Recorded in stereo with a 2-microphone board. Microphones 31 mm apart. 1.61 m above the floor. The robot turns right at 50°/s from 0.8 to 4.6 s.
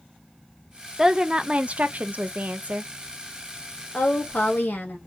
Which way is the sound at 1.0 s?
160° right.